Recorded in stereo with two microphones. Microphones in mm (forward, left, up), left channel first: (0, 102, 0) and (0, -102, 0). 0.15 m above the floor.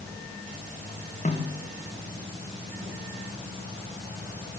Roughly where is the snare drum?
Left.